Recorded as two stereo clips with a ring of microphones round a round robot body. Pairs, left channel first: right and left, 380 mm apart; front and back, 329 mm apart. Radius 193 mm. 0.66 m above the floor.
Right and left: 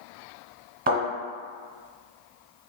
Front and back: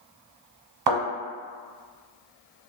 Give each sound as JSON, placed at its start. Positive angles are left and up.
{"t": 0.9, "sound": "a thud", "azimuth_deg": 160, "distance_m": 1.6}